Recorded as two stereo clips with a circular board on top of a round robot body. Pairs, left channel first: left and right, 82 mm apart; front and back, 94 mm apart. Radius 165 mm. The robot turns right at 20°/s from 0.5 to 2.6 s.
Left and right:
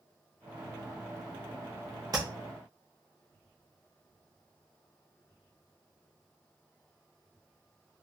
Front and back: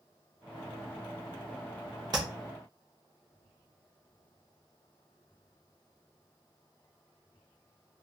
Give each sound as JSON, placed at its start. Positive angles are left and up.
{"t": 2.1, "sound": "tapping", "azimuth_deg": -135, "distance_m": 0.7}